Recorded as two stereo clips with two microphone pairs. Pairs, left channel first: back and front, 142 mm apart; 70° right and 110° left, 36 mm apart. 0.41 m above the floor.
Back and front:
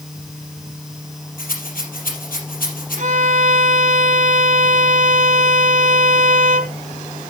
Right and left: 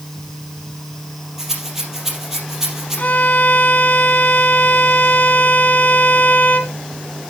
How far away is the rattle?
About 3.5 m.